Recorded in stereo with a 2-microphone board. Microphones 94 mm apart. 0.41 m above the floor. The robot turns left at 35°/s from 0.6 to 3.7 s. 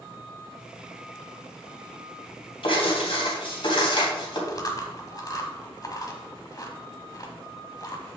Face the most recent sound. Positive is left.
turn(degrees=40)  # may be behind; listen again after turning